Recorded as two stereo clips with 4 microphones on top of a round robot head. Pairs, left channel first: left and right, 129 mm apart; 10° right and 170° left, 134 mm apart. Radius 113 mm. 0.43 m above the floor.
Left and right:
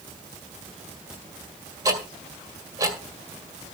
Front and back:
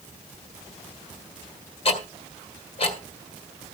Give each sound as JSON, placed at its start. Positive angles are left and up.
{"t": 1.9, "sound": "ticking", "azimuth_deg": -35, "distance_m": 1.9}